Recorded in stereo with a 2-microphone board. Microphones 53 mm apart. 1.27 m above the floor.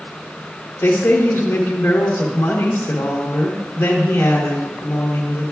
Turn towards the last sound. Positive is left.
turn(degrees=55)  # may be behind; listen again after turning